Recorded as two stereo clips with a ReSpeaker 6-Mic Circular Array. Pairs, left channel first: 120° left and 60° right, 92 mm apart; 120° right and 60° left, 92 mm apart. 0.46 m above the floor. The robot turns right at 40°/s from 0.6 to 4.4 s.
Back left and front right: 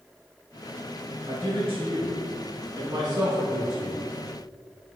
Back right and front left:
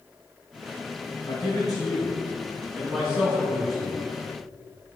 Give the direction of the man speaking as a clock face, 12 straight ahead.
3 o'clock.